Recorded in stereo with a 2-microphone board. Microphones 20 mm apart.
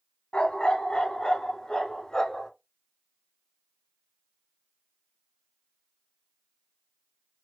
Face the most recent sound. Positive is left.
turn(degrees=35)  # may be behind; listen again after turning